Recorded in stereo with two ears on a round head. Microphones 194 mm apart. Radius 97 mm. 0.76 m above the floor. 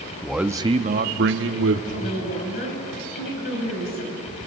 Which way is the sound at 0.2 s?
5° left (ahead or behind).